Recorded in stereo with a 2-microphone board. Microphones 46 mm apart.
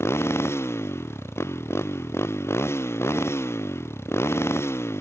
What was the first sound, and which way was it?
A motorcycle, 70° left (ahead or behind).